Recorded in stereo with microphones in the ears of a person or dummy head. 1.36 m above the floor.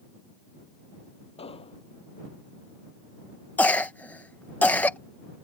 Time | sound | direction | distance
1.4 | an explosion | 35° left (ahead or behind) | ?
3.6 | a cough | 10° left (ahead or behind) | ?